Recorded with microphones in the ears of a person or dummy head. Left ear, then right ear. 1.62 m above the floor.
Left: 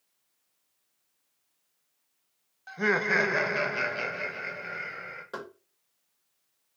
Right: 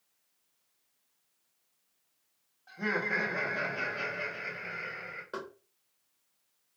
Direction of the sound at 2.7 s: 60° left (ahead or behind).